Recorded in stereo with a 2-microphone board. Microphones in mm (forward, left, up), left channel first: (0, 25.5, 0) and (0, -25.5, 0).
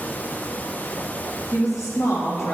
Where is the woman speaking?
75° left (ahead or behind), 1.7 m; by 2.5 s 50° left (ahead or behind), 1.9 m.